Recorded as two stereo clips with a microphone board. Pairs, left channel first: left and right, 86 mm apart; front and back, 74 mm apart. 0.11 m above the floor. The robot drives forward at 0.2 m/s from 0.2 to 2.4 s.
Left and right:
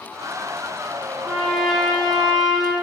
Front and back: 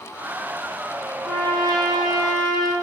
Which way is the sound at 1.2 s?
Straight behind.